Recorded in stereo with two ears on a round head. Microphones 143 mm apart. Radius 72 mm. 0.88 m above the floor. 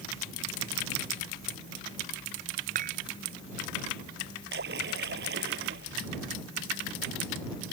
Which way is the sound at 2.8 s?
55° right (ahead or behind).